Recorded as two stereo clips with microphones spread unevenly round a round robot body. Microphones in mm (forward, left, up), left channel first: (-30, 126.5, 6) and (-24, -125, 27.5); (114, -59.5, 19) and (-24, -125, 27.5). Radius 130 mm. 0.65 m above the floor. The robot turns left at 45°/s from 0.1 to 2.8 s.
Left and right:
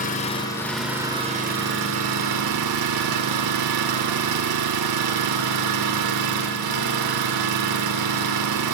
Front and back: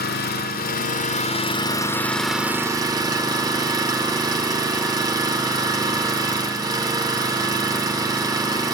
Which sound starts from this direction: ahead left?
An engine running, at 0.0 s.